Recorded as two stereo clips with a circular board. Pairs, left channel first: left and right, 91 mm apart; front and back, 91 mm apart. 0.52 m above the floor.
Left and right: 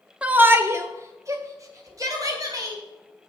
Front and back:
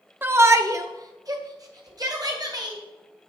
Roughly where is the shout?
Behind right.